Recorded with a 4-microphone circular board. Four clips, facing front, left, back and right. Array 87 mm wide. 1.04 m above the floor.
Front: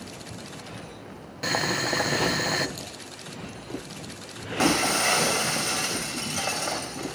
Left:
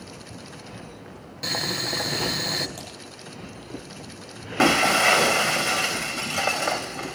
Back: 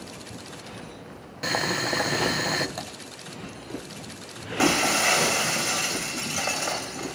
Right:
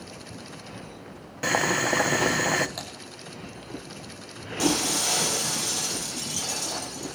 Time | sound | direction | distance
1.4 | boiling | 90° right | 0.8 m
2.8 | typing on a keyboard | 155° right | 5.5 m
4.6 | breaking glass | 95° left | 3 m